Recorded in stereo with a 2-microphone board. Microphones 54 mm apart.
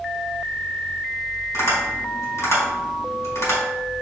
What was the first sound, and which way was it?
Tapping, 65° left (ahead or behind).